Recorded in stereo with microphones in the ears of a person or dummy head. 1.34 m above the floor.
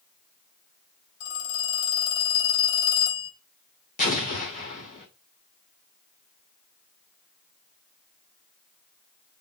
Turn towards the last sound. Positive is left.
turn(degrees=40)  # may be behind; listen again after turning